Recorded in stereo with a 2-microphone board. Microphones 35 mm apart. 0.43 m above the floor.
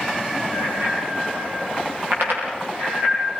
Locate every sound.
0.5 s a bicycle bell: 85° right, 8 m; by 3.4 s 60° right (ahead or behind), 11 m